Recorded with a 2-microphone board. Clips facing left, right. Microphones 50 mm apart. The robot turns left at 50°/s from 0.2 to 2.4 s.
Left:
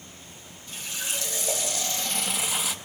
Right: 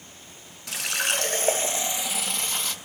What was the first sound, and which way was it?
A running tap, 100° right.